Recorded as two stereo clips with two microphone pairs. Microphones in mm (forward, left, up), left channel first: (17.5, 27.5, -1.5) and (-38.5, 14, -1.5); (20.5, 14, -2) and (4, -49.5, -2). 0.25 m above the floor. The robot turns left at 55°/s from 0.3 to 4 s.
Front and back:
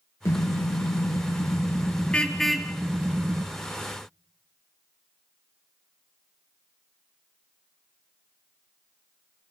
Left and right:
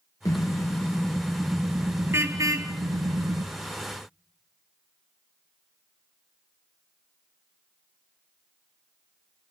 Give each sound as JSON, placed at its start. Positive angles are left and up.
{"t": 0.2, "sound": "a car horn", "azimuth_deg": 45, "distance_m": 3.0}